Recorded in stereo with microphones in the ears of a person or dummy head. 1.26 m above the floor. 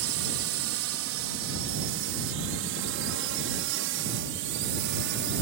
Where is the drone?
65° right (ahead or behind); by 5.4 s 60° right (ahead or behind).